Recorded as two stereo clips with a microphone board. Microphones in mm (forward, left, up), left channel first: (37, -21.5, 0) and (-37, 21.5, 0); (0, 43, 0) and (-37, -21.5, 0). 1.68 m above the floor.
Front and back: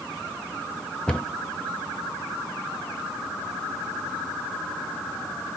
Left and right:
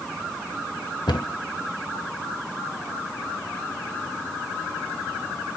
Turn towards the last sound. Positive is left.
turn(degrees=50)